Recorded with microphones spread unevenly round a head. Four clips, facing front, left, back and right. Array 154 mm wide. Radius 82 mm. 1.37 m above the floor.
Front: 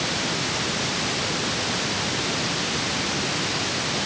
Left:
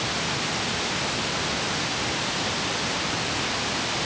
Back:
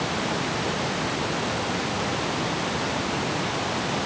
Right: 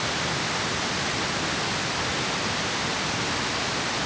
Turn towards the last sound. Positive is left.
No sound to turn to.